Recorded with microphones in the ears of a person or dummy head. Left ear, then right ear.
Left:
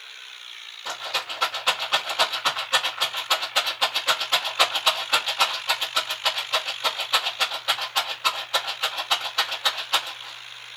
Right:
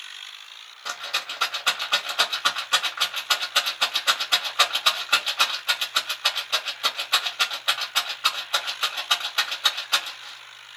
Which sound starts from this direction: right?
A rattle, at 0.8 s.